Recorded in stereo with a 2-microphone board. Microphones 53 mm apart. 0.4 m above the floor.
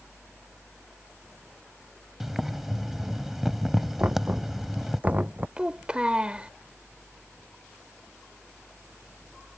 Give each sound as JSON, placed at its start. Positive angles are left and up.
{"t": 2.2, "sound": "boiling", "side_deg": -5}
{"t": 4.0, "sound": "knocking", "side_deg": -30}
{"t": 5.6, "sound": "a child speaking", "side_deg": -20}